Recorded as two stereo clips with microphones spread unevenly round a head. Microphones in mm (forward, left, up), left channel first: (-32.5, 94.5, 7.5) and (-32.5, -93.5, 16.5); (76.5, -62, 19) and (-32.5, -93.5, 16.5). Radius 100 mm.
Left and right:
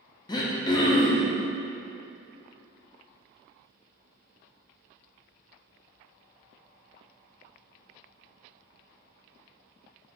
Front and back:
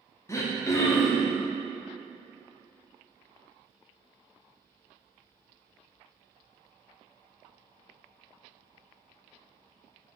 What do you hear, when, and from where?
0.3 s throat clearing: 55° left, 0.5 m